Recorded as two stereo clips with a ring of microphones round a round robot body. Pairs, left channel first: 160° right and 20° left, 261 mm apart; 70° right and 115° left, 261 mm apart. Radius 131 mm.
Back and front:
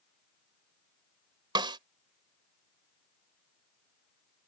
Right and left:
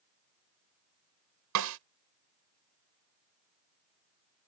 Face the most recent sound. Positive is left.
turn(degrees=95)